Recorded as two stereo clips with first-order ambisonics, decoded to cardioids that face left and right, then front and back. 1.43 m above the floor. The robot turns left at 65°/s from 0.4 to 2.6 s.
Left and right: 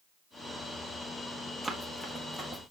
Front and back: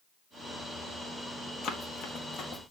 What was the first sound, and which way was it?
Running footsteps, straight ahead.